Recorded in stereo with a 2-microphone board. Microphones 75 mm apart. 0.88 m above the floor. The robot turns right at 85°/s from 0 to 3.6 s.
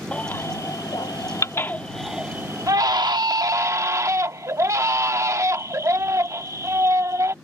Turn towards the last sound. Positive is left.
turn(degrees=-45)